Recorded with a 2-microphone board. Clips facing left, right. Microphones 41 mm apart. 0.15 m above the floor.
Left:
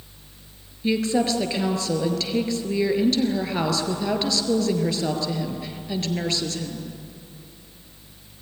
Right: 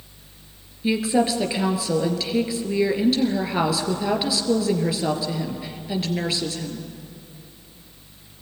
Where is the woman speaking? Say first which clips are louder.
Right 1 dB; 10° right (ahead or behind), 2.5 m.